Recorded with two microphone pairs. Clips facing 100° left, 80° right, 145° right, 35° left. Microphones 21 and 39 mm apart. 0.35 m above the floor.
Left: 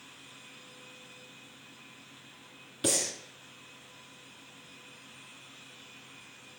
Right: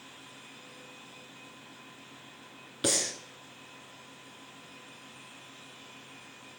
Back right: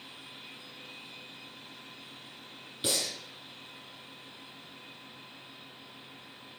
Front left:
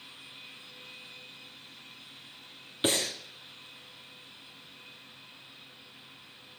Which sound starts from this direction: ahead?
Breathing, at 2.8 s.